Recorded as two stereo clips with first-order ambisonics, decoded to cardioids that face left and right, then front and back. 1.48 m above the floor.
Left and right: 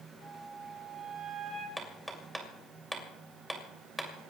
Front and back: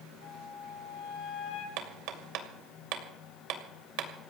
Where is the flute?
15° right, 7 m.